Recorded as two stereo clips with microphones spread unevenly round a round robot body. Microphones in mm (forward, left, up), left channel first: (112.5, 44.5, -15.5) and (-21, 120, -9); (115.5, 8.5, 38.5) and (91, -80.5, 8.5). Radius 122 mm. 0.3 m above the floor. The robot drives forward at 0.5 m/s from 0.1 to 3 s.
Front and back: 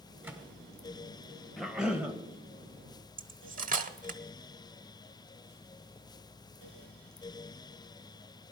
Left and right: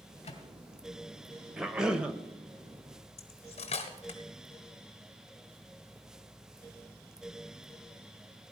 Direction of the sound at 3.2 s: 120° left.